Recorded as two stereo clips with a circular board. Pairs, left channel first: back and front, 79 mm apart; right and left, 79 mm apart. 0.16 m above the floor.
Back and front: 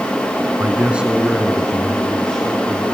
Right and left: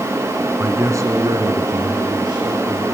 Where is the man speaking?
45° left, 1.2 m; by 2.8 s 105° left, 3.5 m.